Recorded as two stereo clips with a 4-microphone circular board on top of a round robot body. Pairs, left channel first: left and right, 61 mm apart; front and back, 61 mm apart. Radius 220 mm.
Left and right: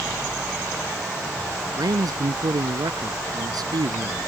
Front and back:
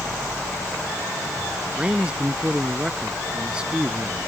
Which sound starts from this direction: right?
A man speaking, at 1.8 s.